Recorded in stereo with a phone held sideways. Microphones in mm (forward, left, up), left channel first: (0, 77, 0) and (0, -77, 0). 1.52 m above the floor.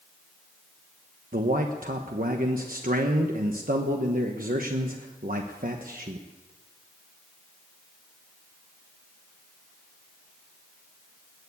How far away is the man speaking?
About 1.2 m.